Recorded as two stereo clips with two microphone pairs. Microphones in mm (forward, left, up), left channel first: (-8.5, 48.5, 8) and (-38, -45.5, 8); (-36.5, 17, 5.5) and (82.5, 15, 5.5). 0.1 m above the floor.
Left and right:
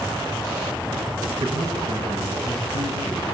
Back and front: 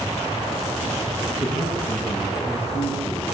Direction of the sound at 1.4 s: 140° right.